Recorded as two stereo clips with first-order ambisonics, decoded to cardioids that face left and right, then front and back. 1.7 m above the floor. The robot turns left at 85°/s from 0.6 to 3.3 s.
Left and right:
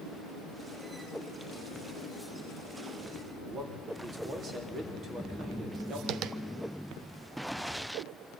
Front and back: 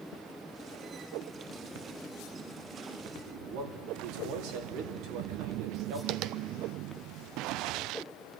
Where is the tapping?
140° right, 0.6 m.